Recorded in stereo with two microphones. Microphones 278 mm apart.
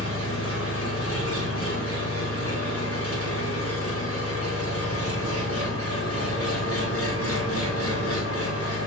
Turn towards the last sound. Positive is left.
turn(degrees=60)  # may be behind; listen again after turning